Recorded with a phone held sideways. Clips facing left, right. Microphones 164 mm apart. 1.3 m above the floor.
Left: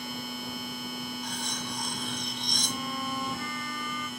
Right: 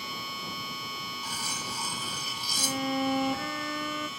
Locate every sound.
0.0 s a machine running: 55° left (ahead or behind)
1.2 s cutlery clinking: 5° right (ahead or behind)
2.6 s a violin: 55° right (ahead or behind)